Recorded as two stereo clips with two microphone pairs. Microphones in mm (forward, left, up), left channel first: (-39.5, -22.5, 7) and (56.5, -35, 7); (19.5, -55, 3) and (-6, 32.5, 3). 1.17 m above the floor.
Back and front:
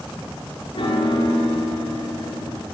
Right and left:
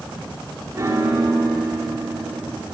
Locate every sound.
0.8 s a piano: 160° left, 4 m